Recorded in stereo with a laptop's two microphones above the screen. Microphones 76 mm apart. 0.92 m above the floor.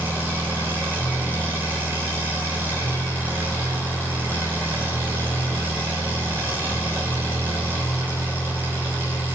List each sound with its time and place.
0.0 s an engine running: 25° right (ahead or behind), 3.5 m